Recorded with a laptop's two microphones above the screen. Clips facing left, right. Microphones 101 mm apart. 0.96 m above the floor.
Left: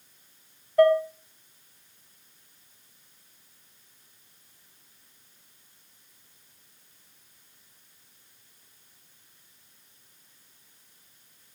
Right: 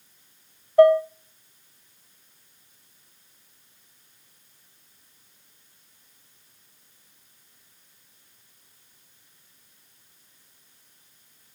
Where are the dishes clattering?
35° right (ahead or behind), 3 m.